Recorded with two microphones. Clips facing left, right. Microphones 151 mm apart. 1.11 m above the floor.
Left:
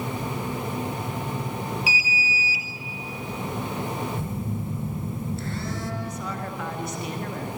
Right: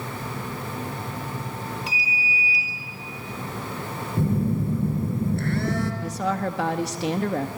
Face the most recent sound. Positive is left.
turn(degrees=-80)